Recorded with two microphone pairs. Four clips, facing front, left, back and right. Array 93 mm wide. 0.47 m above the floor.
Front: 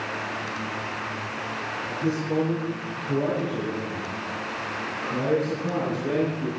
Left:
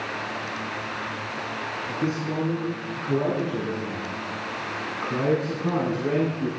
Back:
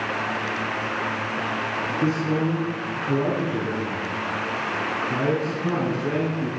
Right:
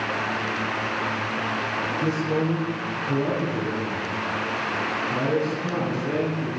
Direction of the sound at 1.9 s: 160° left.